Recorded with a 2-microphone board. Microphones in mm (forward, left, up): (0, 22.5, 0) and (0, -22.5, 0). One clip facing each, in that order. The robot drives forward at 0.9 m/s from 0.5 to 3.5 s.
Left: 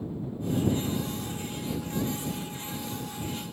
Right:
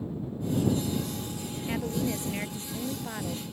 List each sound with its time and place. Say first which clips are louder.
1.7 s a woman speaking: right 2 dB; 60° right (ahead or behind)